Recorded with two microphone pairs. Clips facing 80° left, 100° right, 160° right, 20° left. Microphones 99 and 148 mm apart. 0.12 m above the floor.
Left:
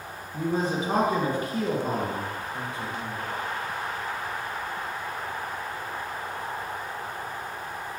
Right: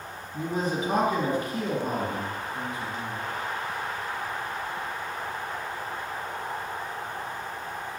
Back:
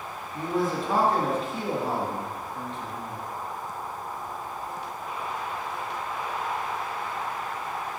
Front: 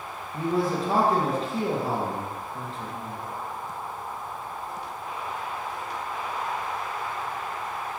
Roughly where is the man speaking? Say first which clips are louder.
Left 2 dB, front 2 dB; ahead left.